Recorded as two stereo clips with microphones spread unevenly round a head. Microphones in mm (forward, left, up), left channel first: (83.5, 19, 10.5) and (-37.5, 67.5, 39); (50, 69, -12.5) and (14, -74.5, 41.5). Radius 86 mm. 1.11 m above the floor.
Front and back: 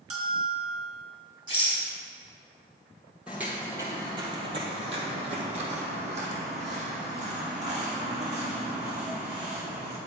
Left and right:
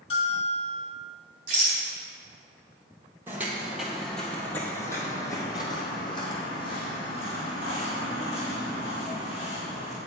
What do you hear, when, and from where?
0.1 s a bell: 140° left, 3 m
1.5 s a rattle: 135° right, 4 m
3.3 s footsteps: 140° right, 1.4 m; by 10.0 s 135° left, 4.5 m